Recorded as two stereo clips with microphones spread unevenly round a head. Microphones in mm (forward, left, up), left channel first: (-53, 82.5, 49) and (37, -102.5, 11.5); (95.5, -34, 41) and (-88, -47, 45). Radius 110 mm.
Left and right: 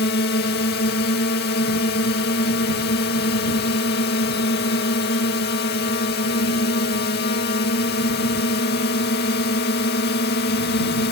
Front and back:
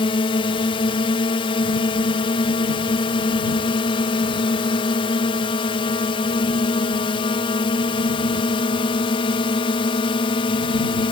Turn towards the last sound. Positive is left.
turn(degrees=70)